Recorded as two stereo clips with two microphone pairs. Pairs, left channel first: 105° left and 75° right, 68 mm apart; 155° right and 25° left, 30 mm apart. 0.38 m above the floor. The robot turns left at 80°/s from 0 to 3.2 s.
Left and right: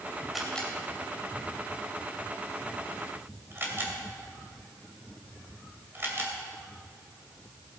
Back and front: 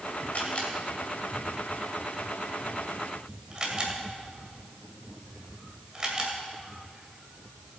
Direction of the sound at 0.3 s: 165° right.